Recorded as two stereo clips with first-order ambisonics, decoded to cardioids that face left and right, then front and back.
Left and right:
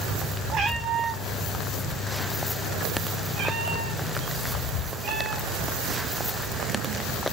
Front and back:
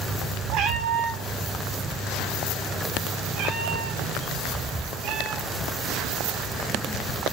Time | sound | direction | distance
0.5 | a cat meowing | 145° right | 5 m